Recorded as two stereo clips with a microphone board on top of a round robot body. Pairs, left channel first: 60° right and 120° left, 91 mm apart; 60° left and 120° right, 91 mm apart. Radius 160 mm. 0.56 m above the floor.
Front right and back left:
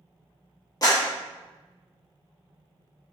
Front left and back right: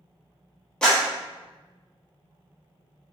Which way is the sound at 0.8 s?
20° right.